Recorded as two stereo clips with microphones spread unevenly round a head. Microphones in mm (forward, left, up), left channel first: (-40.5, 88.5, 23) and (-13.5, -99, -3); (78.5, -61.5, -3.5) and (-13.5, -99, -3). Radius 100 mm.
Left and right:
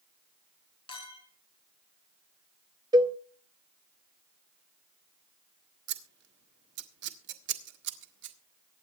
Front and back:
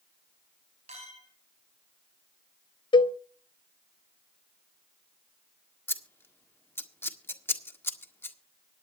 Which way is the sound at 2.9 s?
15° right.